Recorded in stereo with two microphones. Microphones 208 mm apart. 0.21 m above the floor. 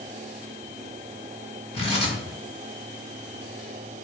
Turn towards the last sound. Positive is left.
turn(degrees=30)  # may be behind; listen again after turning